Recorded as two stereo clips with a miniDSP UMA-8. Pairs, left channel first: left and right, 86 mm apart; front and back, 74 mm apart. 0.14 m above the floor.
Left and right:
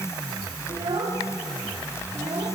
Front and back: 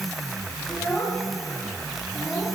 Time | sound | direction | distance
0.7 | a child speaking | 85° right | 6.5 m